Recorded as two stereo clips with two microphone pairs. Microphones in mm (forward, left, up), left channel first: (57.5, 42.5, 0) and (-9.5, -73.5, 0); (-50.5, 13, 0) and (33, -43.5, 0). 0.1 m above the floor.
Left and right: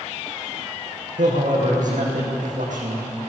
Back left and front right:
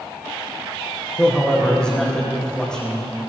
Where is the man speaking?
130° right, 5 m.